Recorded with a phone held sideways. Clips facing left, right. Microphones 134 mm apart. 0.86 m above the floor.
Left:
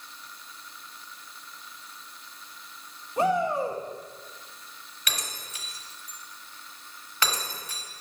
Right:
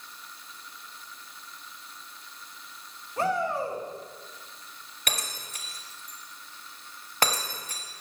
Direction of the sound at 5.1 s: 45° right (ahead or behind).